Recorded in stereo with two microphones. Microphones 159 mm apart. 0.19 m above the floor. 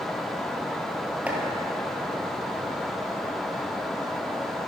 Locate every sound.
1.3 s chopping: 10° right (ahead or behind), 2 m